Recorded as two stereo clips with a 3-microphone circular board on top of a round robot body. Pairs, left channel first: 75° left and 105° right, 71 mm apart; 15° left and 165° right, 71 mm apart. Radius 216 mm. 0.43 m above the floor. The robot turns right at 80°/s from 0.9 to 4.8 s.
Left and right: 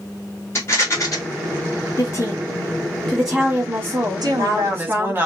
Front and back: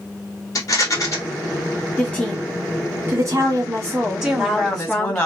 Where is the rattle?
35° left, 2.5 m; by 1.2 s 55° left, 2.5 m.